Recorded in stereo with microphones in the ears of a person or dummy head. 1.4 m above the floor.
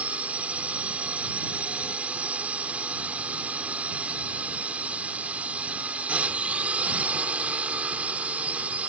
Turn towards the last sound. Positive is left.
turn(degrees=-5)  # may be behind; listen again after turning